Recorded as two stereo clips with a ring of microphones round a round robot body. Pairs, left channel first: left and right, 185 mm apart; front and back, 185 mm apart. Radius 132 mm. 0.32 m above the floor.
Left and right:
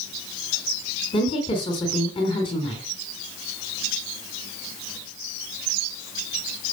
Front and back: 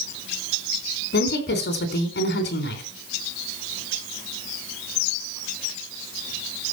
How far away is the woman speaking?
About 4 m.